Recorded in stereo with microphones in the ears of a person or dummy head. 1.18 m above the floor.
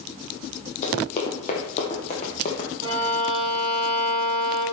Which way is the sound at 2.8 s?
30° right (ahead or behind).